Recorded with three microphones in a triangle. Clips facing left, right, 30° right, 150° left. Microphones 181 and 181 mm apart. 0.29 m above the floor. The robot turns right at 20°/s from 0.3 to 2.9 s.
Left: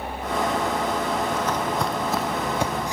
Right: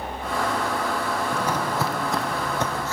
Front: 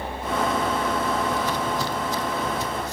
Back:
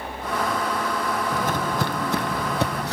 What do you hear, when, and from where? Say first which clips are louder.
1.3 s footsteps: left 1 dB, even; 165° right, 0.8 m; by 2.9 s 160° left, 0.8 m